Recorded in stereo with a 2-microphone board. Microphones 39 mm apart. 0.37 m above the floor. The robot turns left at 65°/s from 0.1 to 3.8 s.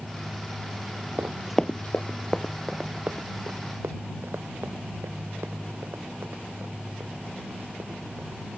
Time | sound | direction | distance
1.2 | running footsteps | 60° right (ahead or behind) | ?